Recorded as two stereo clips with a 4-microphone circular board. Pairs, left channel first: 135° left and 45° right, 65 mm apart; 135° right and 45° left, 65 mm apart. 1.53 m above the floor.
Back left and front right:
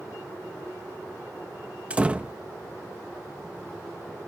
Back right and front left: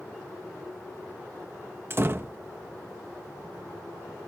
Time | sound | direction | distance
1.9 | a door slam | 15° left | ?